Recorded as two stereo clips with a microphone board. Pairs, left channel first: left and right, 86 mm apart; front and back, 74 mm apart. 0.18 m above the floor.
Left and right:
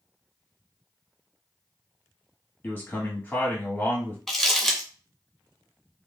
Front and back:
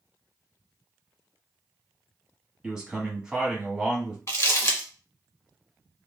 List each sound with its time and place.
2.6 s a man speaking: 115° left, 1.2 m
4.3 s crumpling: 5° left, 1.2 m